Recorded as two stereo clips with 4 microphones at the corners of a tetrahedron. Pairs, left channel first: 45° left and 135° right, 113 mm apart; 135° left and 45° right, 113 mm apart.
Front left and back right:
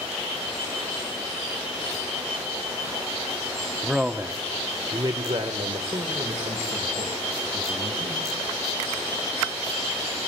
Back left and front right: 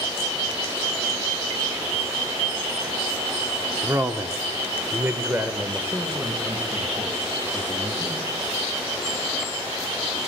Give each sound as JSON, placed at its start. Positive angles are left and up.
{"t": 3.8, "sound": "a man speaking", "azimuth_deg": -40, "distance_m": 0.9}